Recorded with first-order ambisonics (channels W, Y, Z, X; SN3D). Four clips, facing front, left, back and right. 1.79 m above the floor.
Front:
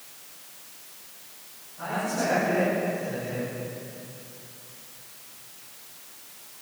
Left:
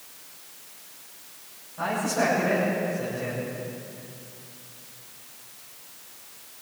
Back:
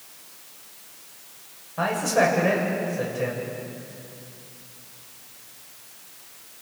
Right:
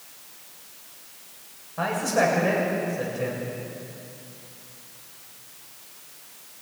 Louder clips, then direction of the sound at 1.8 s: Right 3 dB, back 7 dB; 145° right.